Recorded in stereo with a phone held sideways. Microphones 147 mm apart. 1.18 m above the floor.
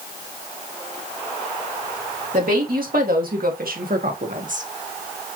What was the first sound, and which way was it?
A woman speaking, 70° right (ahead or behind).